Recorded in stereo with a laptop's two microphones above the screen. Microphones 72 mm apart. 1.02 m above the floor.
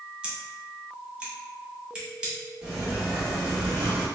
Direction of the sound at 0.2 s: 10° right (ahead or behind).